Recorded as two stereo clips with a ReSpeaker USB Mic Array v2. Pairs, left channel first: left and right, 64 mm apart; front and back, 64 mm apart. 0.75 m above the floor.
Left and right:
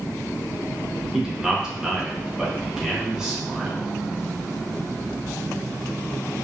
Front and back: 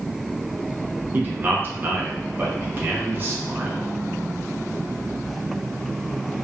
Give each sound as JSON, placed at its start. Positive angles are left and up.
{"t": 1.1, "sound": "a man speaking", "azimuth_deg": -160, "distance_m": 0.6}